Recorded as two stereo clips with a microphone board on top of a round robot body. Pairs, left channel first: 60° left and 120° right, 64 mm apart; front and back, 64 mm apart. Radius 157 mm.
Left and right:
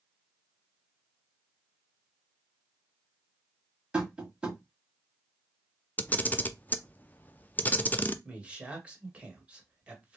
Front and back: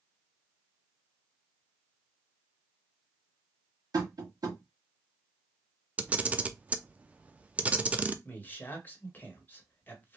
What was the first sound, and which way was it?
Tapping, 160° left.